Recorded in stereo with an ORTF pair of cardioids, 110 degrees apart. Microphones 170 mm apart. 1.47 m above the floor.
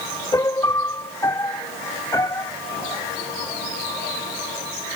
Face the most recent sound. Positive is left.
turn(degrees=20)